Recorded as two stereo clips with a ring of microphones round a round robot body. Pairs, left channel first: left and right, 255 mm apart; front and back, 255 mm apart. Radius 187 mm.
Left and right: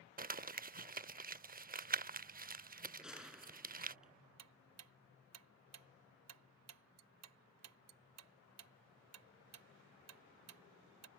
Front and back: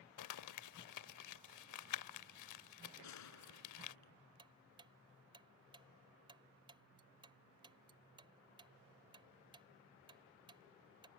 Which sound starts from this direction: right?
Ticking, at 4.4 s.